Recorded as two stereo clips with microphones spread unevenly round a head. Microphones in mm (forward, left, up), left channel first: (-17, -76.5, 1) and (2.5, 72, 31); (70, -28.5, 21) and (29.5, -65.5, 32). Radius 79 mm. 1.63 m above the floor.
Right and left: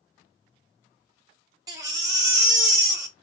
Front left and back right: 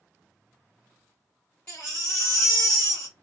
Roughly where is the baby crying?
Behind left.